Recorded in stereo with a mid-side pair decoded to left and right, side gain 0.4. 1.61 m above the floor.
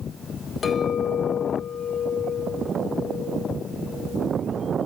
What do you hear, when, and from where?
0.6 s a clink: 50° left, 1.4 m